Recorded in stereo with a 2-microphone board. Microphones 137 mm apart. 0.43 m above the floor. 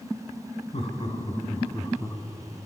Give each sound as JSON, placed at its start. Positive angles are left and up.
{"t": 0.7, "sound": "laughter", "side_deg": 50, "distance_m": 4.0}